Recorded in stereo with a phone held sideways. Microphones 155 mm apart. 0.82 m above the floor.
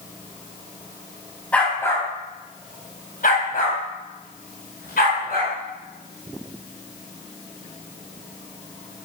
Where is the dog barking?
10° left (ahead or behind), 3 m; by 5.5 s 75° left (ahead or behind), 4.5 m.